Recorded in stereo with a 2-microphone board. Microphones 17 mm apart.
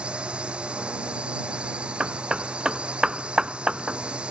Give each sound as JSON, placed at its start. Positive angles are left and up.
{"t": 0.0, "sound": "a drone", "side_deg": -80}
{"t": 2.0, "sound": "hammering", "side_deg": -45}